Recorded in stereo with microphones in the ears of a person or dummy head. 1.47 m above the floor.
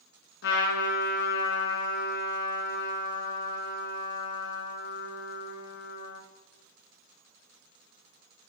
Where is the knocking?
I don't hear knocking.